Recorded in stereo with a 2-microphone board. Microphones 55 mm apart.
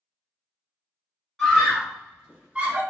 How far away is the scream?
About 1.8 m.